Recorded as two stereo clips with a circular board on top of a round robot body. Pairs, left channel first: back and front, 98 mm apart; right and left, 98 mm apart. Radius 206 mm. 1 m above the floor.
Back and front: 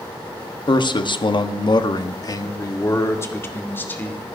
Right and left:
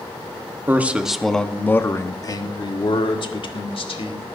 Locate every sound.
0.7 s a man speaking: 155° left, 1.1 m; by 4.2 s 110° right, 2 m